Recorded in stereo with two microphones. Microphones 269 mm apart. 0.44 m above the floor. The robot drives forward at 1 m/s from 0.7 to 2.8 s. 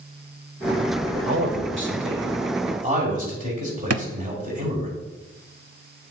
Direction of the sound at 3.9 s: 60° right (ahead or behind).